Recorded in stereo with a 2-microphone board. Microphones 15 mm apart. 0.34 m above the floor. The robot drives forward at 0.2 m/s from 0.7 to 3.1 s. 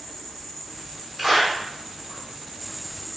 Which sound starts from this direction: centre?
A clap, at 1.2 s.